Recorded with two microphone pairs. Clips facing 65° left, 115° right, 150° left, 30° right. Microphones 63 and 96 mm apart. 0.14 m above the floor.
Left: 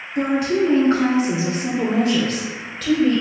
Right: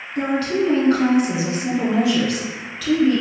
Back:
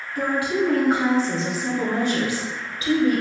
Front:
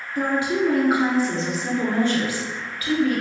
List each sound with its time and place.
0.1 s a woman speaking: straight ahead, 1.2 m; by 3.2 s 95° left, 2.0 m